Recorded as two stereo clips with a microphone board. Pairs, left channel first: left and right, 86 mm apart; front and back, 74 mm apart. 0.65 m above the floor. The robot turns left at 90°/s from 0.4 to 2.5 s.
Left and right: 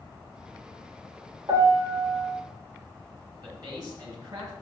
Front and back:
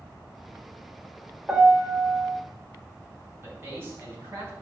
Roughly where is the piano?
Right.